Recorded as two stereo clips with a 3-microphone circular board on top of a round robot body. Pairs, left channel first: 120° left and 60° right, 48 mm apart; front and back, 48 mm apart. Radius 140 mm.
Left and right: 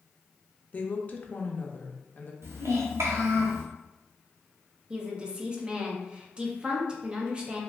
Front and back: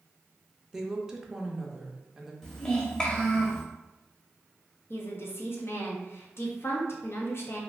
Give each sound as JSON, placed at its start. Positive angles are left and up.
{"t": 0.7, "sound": "a woman speaking", "azimuth_deg": 105, "distance_m": 0.7}
{"t": 2.4, "sound": "a child speaking", "azimuth_deg": -75, "distance_m": 1.0}
{"t": 4.9, "sound": "a woman speaking", "azimuth_deg": 5, "distance_m": 0.8}